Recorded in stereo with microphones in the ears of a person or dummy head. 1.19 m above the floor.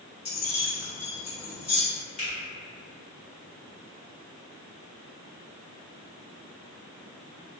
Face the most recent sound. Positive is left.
turn(degrees=40)  # may be behind; listen again after turning